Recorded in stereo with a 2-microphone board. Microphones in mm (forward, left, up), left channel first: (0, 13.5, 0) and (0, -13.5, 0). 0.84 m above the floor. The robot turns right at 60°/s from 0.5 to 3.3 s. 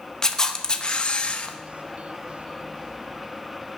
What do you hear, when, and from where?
0.2 s a camera shutter: 35° left, 0.8 m; by 1.6 s 100° left, 0.8 m